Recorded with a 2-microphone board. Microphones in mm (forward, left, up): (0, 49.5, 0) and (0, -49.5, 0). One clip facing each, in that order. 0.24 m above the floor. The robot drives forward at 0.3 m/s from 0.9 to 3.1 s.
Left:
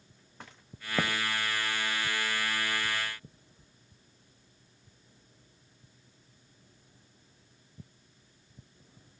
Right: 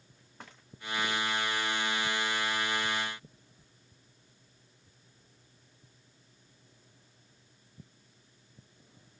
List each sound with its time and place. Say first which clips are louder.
1.0 s footsteps: left 4 dB; 80° left, 1.4 m; by 1.1 s 75° left (ahead or behind), 1.4 m